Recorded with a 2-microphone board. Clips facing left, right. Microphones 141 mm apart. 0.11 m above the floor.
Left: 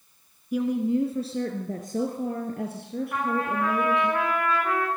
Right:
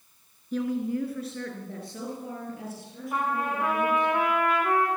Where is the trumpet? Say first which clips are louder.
Even; 15° right (ahead or behind), 6 m.